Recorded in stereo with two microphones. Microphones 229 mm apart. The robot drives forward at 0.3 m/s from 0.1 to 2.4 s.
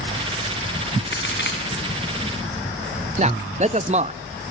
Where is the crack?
50° left (ahead or behind), 5 m.